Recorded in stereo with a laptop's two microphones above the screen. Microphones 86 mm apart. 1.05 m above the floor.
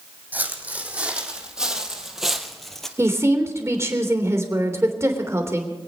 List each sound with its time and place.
0.3 s footsteps: 20° right (ahead or behind), 3.5 m; by 2.9 s 5° left (ahead or behind), 1.9 m
3.0 s a woman speaking: 30° right (ahead or behind), 3 m